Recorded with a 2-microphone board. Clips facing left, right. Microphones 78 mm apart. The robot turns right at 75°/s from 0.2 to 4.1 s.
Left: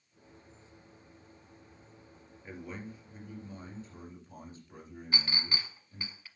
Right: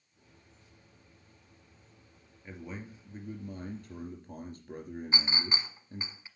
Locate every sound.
2.4 s a man speaking: 165° left, 3 m; by 6.1 s 70° right, 3 m
5.1 s a clink: 25° right (ahead or behind), 1.0 m